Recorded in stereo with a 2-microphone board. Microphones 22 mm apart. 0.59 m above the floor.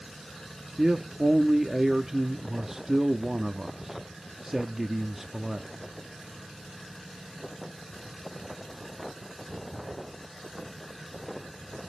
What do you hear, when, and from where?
0.8 s a man speaking: 15° right (ahead or behind), 0.6 m